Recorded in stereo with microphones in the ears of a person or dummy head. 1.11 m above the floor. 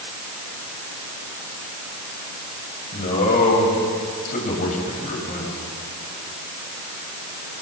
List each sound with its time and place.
2.9 s a man speaking: 40° left (ahead or behind), 5.5 m